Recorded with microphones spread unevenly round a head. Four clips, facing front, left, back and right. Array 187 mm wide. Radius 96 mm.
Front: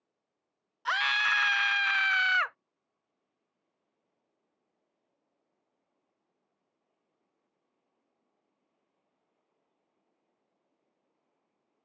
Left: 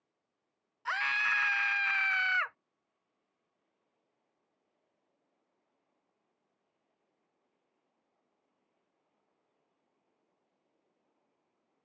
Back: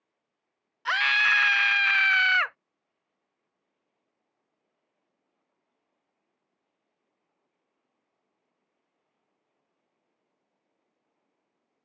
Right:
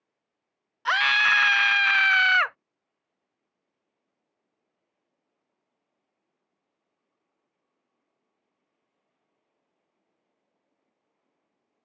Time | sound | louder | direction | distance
0.8 | a scream | right 10 dB, back 4 dB | 110° right | ?